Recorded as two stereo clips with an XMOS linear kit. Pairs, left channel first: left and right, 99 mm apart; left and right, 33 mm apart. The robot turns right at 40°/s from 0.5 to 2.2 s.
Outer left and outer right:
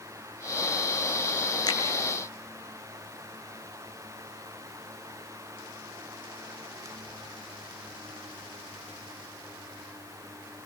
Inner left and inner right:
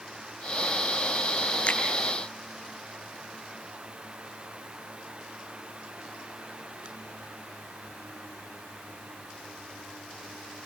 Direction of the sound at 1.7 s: 45° left (ahead or behind).